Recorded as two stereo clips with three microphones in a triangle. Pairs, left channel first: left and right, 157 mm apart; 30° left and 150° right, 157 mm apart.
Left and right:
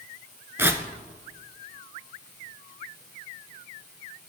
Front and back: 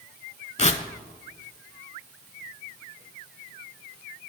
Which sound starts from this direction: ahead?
Tearing paper, at 0.6 s.